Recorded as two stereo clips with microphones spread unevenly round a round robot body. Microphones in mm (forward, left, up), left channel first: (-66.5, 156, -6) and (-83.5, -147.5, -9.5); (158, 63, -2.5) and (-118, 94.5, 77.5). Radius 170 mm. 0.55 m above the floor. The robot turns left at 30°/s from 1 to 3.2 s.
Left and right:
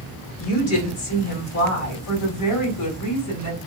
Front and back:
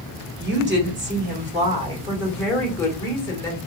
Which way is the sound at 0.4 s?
120° left.